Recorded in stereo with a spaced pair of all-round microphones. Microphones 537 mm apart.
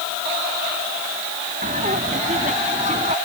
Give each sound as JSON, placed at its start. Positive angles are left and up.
{"t": 1.6, "sound": "laughter", "side_deg": -15}